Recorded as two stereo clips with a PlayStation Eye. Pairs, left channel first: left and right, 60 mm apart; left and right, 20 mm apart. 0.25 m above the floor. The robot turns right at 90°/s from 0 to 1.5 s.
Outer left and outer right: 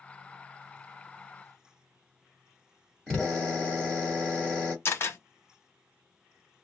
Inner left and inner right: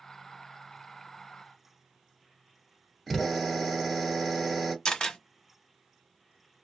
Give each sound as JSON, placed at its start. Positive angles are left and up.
{"t": 3.1, "sound": "a drill", "side_deg": 10, "distance_m": 1.6}
{"t": 4.8, "sound": "a camera shutter", "side_deg": 40, "distance_m": 0.9}